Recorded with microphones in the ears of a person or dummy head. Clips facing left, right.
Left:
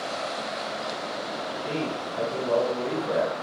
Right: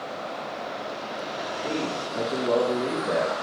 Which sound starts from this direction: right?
A man speaking, at 1.6 s.